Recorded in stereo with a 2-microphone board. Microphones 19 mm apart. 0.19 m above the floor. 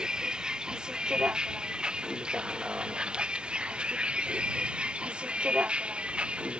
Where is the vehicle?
50° right (ahead or behind); by 6.6 s 90° right.